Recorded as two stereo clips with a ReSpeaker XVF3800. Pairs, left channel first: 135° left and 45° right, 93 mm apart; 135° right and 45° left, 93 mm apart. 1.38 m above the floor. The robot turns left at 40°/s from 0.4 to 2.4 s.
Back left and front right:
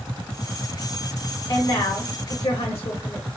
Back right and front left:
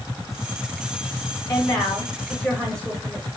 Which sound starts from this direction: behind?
A woman speaking, at 1.5 s.